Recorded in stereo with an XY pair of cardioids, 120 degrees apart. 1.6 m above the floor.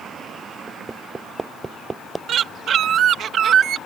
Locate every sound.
0.7 s hammering: 20° right
2.3 s a bird: 55° right